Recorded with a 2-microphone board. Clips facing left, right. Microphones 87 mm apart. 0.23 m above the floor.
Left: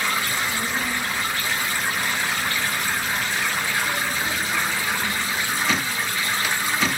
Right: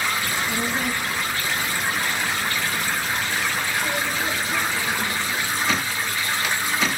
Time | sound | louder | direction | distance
0.2 | a child speaking | right 1 dB | 60° right (ahead or behind) | 2.5 m